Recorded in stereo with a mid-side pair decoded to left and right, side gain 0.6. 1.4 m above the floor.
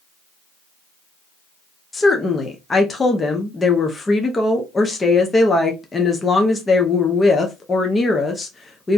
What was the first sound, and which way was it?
A woman speaking, 20° left.